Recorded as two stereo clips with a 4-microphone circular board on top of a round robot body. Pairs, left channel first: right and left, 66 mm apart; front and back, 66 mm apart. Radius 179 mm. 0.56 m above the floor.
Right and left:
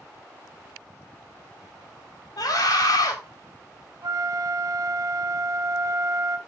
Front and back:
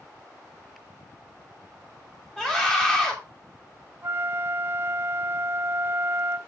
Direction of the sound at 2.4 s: 85° right.